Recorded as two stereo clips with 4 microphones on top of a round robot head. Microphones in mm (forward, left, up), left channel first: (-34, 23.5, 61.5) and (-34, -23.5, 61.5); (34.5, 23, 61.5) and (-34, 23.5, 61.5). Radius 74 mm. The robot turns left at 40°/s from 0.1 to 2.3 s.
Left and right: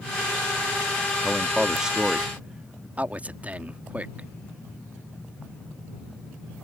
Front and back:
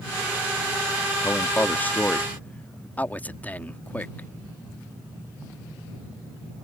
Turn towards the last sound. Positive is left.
turn(degrees=-50)